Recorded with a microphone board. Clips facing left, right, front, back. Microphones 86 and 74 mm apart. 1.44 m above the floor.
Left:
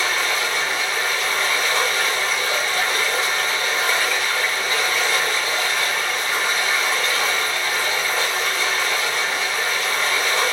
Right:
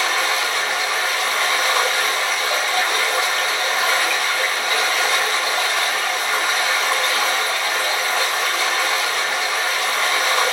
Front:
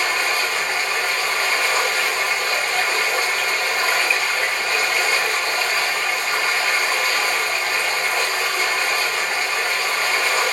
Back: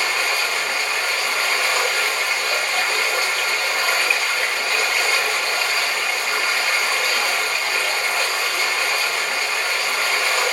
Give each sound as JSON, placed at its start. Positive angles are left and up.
{"t": 0.0, "sound": "running water", "azimuth_deg": -90, "distance_m": 3.0}